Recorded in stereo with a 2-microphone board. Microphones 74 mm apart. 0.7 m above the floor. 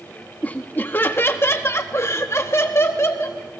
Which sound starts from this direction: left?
Laughter, at 0.4 s.